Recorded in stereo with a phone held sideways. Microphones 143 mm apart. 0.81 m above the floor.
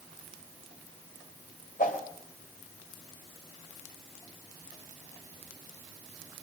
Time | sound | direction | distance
1.8 | a whoosh | 70° left (ahead or behind) | 3.5 m